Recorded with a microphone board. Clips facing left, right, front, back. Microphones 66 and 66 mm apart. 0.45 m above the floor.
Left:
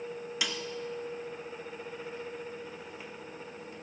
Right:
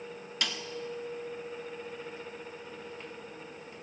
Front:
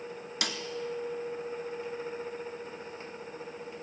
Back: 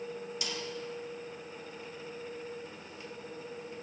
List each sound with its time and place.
0.4 s a snare drum: 5° left, 1.0 m